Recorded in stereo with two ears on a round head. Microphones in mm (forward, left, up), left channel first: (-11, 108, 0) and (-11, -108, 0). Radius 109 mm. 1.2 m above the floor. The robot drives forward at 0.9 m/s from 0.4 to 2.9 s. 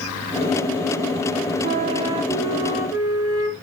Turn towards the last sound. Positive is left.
turn(degrees=-15)  # may be behind; listen again after turning